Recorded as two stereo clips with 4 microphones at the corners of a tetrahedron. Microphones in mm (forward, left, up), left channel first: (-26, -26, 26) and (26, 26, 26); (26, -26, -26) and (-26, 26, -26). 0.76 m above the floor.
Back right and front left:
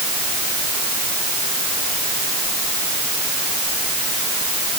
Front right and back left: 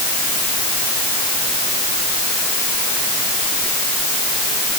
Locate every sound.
Only background noise.